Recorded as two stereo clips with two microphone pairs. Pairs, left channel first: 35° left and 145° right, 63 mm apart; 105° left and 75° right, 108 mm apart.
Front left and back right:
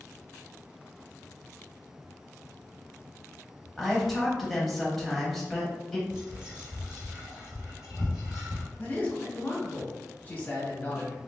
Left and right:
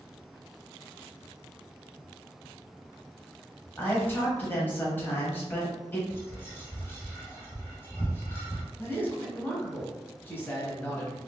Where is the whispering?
145° left, 1.7 m.